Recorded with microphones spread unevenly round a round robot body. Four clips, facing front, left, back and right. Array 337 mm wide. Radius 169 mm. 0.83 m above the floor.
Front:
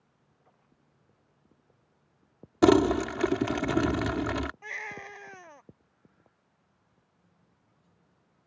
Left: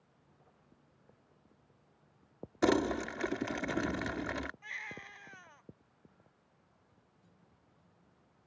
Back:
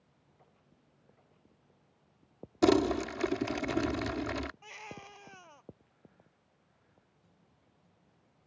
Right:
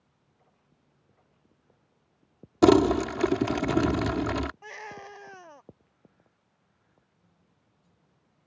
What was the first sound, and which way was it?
Crumpling, 65° right.